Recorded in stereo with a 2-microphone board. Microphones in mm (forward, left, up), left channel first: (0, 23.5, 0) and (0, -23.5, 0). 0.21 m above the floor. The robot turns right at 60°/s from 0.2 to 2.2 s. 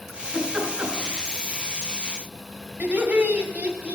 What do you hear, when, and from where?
0.1 s a giggle: 10° right (ahead or behind), 2 m; by 1.2 s 50° right (ahead or behind), 2 m
2.8 s laughter: 30° right (ahead or behind), 1.8 m